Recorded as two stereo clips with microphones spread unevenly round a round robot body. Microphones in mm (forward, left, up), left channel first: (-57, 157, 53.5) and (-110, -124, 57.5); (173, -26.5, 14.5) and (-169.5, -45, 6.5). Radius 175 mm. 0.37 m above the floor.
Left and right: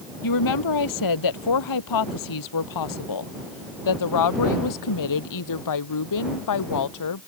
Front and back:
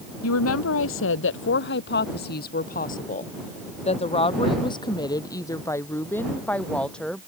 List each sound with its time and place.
0.2 s a woman speaking: 55° left; by 7.3 s 90° left